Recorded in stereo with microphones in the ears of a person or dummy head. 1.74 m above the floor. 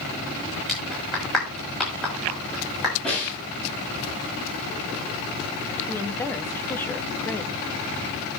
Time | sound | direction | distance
0.7 | a clap | centre (ahead or behind) | 6.5 m
3.0 | a snare drum | centre (ahead or behind) | 10 m
5.9 | a woman speaking | 10° left (ahead or behind) | 0.8 m